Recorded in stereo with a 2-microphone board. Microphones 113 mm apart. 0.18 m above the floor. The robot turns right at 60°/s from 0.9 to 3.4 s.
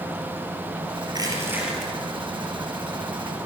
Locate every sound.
1.1 s crushing: 45° right, 5 m; by 1.9 s 5° left, 5 m